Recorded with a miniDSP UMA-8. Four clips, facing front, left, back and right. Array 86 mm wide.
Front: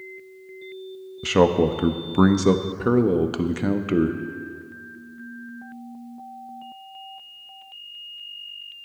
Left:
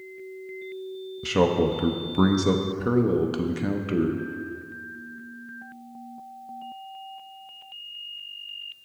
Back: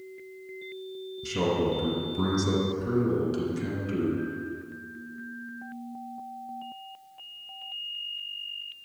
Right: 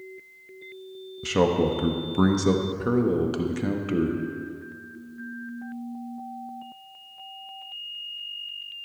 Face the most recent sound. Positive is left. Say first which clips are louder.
# even, front 9 dB
turn(degrees=5)